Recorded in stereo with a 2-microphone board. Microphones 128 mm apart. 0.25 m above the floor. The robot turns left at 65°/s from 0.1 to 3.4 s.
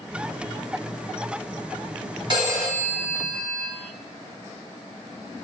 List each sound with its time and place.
2.3 s a phone ringing: 130° right, 1.1 m; by 3.7 s 160° left, 1.1 m